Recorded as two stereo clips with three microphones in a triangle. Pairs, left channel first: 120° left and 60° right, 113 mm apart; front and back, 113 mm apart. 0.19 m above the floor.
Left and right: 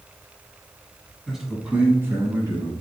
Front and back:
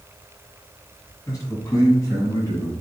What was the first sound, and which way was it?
A man speaking, 30° left.